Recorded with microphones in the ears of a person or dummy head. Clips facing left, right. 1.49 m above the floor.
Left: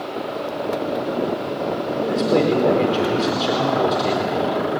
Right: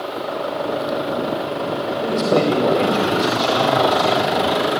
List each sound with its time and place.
2.0 s a man speaking: 10° left (ahead or behind), 4.5 m